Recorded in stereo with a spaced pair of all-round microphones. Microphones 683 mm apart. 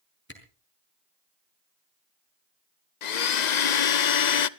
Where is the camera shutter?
15° left (ahead or behind), 5 m.